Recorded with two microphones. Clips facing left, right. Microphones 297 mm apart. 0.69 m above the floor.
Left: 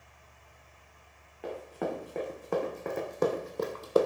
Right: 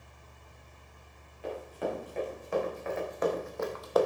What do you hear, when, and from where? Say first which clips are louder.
1.4 s running footsteps: even; 70° left (ahead or behind), 2.5 m; by 4.1 s 25° left (ahead or behind), 0.8 m